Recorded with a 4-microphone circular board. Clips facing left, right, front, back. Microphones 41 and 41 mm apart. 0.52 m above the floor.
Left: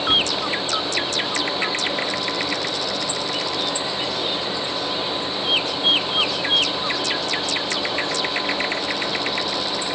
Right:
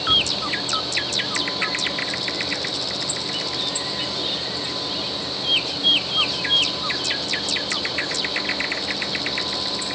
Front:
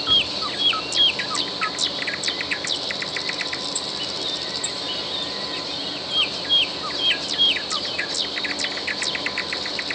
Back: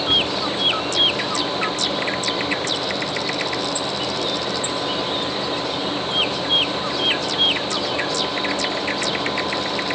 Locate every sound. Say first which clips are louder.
0.1 s a cupboard door: even, even; 120° left, 1.2 m